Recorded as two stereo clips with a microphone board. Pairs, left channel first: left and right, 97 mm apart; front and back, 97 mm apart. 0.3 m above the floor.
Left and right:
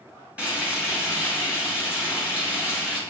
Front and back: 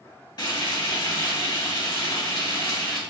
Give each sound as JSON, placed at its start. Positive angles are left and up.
{"t": 0.4, "sound": "frying", "azimuth_deg": -15, "distance_m": 1.9}